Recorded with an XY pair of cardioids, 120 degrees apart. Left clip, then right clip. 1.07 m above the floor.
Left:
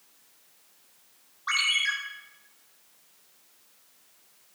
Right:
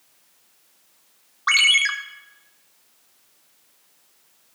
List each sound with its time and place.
1.5 s a ringtone: 65° right, 1.4 m